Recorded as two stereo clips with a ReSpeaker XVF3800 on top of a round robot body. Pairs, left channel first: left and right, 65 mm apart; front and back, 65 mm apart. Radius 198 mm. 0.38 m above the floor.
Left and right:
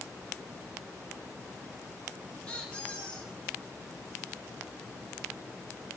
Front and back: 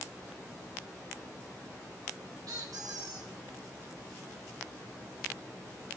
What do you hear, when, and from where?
2.5 s a squeak: 160° left, 2.5 m